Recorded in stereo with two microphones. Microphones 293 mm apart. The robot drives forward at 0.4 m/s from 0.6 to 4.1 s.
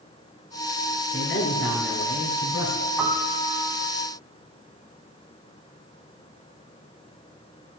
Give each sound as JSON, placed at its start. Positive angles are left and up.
{"t": 1.1, "sound": "a man speaking", "side_deg": 45, "distance_m": 3.0}
{"t": 3.0, "sound": "a piano", "side_deg": 0, "distance_m": 2.5}